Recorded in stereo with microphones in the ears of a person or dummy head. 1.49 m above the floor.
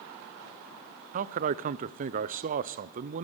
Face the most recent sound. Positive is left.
turn(degrees=-55)  # may be behind; listen again after turning